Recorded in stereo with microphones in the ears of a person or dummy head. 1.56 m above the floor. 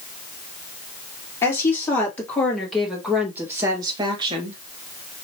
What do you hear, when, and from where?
1.4 s a woman speaking: 15° left (ahead or behind), 2.5 m; by 4.6 s 40° right (ahead or behind), 1.4 m